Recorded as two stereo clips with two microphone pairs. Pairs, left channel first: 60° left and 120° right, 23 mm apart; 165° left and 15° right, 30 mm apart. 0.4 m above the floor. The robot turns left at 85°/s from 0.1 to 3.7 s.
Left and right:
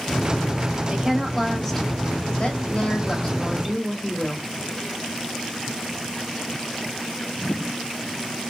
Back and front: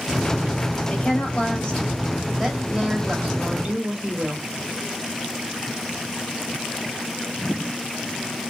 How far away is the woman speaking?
About 2 m.